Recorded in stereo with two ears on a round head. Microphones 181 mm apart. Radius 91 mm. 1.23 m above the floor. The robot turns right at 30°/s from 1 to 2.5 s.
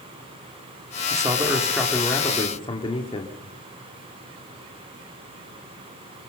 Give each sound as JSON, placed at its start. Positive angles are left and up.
{"t": 1.1, "sound": "a man speaking", "azimuth_deg": -20, "distance_m": 2.5}